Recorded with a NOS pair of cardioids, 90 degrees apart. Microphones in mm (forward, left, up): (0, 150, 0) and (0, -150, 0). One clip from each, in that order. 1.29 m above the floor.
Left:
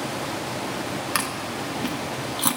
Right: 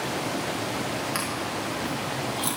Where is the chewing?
45° left, 1.7 m.